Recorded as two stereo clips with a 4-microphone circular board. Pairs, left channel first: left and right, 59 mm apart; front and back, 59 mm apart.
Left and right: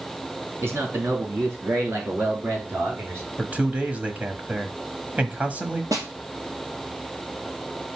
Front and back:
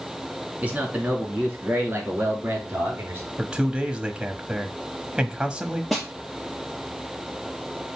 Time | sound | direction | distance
0.6 | a man speaking | 120° right | 2.5 m
3.4 | a man speaking | 120° right | 1.1 m
5.9 | a snare drum | 95° right | 3 m